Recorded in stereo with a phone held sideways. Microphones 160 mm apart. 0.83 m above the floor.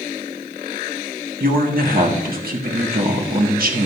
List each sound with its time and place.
1.4 s a man speaking: 65° right (ahead or behind), 1.7 m